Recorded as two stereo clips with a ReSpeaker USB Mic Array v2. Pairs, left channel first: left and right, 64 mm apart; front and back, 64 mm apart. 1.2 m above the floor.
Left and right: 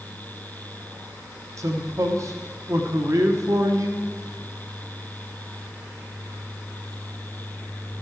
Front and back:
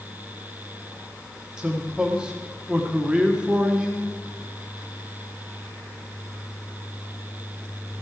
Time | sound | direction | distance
1.6 | a man speaking | 105° right | 1.1 m